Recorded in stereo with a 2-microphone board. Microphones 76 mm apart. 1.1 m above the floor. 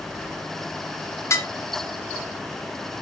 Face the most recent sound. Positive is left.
turn(degrees=40)  # may be behind; listen again after turning